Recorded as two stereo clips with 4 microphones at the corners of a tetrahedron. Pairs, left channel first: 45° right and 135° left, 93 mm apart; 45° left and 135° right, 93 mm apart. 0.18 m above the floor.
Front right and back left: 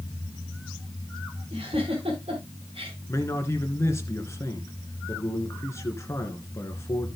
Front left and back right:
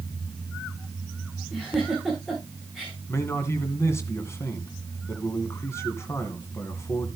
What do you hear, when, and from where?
1.5 s a giggle: 135° left, 5 m
3.1 s a man speaking: straight ahead, 2 m